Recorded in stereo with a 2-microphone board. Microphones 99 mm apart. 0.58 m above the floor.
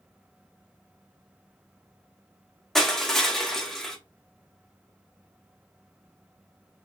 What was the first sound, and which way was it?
Crushing, 5° left (ahead or behind).